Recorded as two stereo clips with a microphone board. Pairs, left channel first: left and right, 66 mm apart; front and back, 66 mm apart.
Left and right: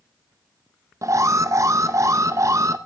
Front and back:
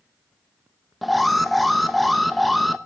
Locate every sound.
1.0 s an alarm: 90° right, 0.9 m